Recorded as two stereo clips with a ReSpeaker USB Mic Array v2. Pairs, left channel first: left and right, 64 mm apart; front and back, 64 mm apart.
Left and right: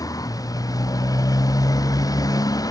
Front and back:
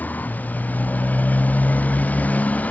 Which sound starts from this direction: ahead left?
A motorcycle, at 0.0 s.